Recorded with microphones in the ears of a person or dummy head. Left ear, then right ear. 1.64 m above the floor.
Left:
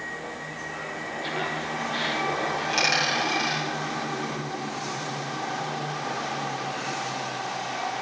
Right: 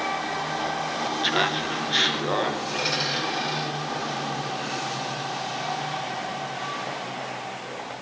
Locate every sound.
1.2 s laughter: 45° right (ahead or behind), 0.8 m; by 3.6 s 60° right (ahead or behind), 3 m
2.6 s a dropped coin: 70° left (ahead or behind), 6.5 m